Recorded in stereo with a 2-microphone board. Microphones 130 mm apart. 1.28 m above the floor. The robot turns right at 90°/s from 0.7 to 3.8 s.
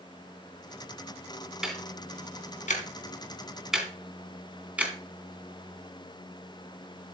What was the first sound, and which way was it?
Ticking, 5° right (ahead or behind).